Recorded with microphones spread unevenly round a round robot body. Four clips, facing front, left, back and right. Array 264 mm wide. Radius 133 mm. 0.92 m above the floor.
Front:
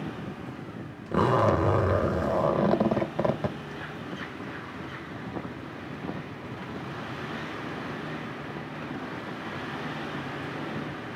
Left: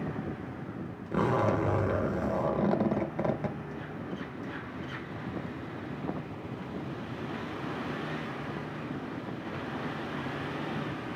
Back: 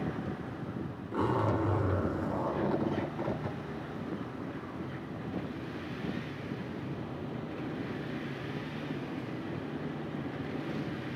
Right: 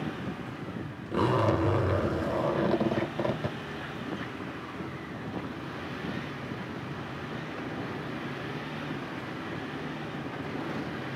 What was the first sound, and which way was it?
A zipper, 5° left.